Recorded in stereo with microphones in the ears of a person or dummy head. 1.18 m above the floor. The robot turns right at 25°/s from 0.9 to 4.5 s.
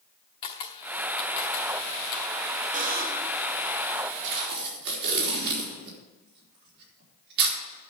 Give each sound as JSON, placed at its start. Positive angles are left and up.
{"t": 0.4, "sound": "a camera shutter", "side_deg": 25, "distance_m": 0.9}
{"t": 2.7, "sound": "a buzzer", "side_deg": -35, "distance_m": 1.8}
{"t": 4.2, "sound": "tape being pulled", "side_deg": -65, "distance_m": 4.0}